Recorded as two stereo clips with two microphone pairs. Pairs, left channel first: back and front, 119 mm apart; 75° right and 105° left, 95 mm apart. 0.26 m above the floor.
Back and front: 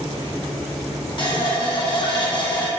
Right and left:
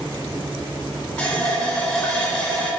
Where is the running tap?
150° right, 1.2 m.